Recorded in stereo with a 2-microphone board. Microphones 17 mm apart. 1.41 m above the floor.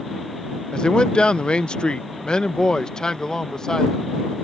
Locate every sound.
0.7 s a man speaking: 65° left (ahead or behind); by 4.1 s 35° left (ahead or behind)